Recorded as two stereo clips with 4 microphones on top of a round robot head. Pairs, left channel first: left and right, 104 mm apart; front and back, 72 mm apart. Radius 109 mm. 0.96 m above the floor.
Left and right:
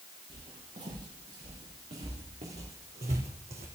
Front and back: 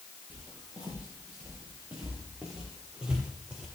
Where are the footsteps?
105° right, 5.5 m; by 3.7 s 110° right, 2.5 m.